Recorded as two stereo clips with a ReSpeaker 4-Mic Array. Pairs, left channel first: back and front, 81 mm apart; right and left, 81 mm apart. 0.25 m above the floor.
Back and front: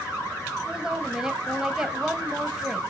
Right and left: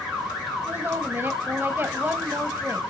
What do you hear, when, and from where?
0.7 s a woman speaking: 70° left, 1.4 m